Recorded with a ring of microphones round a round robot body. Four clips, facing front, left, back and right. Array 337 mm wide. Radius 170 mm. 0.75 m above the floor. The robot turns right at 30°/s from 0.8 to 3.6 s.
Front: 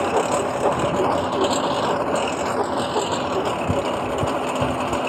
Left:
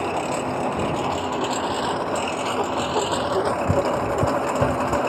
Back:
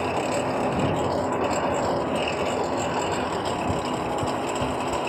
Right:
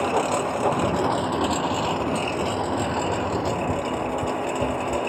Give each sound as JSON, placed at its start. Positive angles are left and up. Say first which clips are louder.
{"t": 0.0, "sound": "a lawn mower", "louder": "right 2 dB, front 5 dB", "azimuth_deg": -20}